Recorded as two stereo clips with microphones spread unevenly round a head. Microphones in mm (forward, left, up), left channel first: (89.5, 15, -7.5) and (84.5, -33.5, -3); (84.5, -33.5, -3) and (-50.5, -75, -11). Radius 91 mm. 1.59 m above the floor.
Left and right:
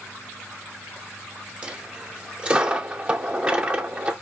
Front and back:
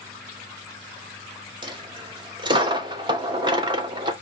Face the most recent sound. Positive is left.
turn(degrees=-130)